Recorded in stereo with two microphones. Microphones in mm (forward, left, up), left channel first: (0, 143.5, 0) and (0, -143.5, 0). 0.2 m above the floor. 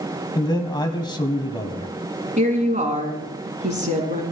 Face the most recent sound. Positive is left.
turn(degrees=-25)  # may be behind; listen again after turning